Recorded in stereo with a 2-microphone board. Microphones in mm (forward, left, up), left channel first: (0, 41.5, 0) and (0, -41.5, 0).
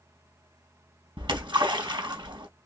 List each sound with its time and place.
1.2 s a splash: 70° right (ahead or behind), 3.5 m